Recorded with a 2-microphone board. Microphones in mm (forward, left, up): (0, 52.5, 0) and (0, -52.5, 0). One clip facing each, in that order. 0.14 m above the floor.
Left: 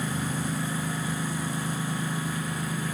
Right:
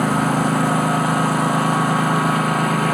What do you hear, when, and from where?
0.0 s a lawn mower: 85° right